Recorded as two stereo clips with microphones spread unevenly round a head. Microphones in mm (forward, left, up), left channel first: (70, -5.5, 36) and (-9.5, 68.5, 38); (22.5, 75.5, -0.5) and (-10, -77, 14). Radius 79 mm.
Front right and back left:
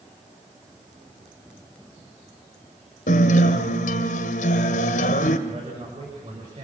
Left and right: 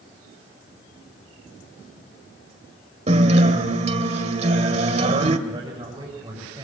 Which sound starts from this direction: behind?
A man speaking, at 5.5 s.